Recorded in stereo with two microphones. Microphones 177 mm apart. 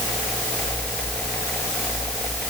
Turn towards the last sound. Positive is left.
No sound to turn to.